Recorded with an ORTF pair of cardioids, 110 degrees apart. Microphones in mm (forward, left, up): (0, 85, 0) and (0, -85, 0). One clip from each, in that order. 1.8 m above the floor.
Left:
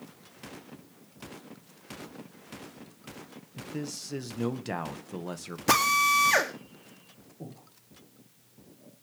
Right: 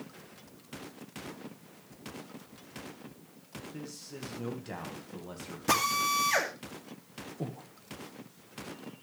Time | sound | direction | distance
3.6 | a man speaking | 50° left | 2 m
5.7 | a drill | 30° left | 2.5 m
7.4 | breathing | 40° right | 3 m